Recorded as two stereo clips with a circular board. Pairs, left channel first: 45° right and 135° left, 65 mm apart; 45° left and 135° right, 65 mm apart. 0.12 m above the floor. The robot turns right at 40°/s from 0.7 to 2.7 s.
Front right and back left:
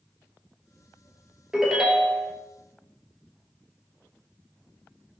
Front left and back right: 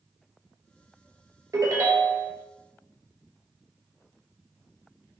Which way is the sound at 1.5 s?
150° right.